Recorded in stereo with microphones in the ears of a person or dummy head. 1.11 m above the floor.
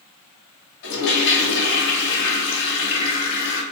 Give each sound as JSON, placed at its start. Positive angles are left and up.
{"t": 0.8, "sound": "a toilet flushing", "side_deg": 65, "distance_m": 1.1}